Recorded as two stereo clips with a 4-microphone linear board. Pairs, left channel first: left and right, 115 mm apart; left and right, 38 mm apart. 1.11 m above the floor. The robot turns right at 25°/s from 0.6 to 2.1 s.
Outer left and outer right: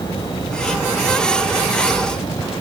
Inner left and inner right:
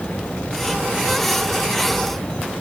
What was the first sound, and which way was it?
Only background noise.